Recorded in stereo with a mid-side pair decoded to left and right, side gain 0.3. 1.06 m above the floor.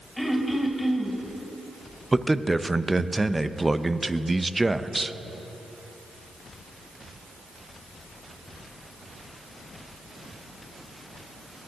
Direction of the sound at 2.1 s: 20° right.